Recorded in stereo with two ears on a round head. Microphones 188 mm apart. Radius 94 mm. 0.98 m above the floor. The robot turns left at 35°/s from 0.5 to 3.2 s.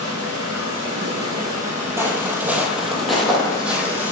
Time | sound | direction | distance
0.0 | running water | 95° right | 3 m
2.0 | footsteps | 10° right (ahead or behind) | 1.6 m